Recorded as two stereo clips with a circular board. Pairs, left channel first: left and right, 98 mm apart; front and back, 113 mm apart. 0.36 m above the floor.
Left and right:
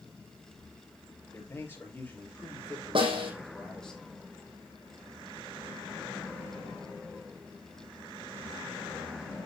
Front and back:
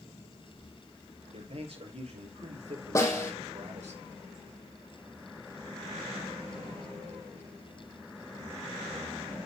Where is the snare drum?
65° right, 5.5 m.